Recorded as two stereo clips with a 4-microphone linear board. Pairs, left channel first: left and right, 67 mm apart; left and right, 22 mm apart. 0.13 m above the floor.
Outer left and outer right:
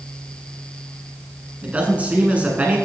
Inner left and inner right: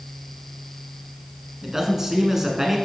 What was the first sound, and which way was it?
A man speaking, 20° right (ahead or behind).